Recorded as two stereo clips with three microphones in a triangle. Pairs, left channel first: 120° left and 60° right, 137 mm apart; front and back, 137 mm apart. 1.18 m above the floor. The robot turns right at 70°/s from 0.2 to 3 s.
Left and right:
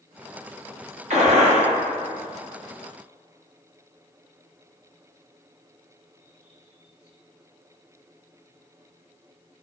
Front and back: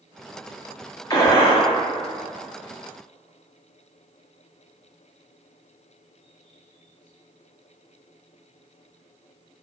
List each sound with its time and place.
1.1 s a gunshot: 60° right, 0.7 m; by 1.6 s 20° right, 0.7 m